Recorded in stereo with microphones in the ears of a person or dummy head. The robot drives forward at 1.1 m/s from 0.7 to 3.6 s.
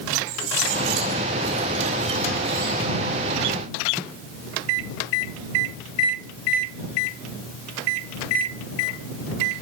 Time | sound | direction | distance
0.3 | cutlery clinking | 60° right (ahead or behind) | 1.6 m